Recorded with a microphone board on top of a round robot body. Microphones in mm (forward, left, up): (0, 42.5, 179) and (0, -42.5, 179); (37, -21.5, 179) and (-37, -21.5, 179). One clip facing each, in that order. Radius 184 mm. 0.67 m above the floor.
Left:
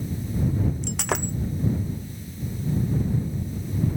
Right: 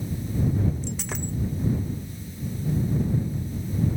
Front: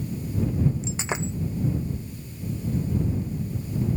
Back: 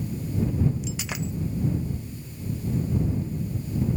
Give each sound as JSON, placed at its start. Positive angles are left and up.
{"t": 0.8, "sound": "breaking glass", "azimuth_deg": 65}